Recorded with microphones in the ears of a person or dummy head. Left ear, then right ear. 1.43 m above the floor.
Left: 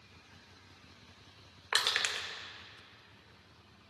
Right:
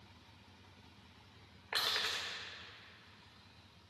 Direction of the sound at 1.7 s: 30° left (ahead or behind).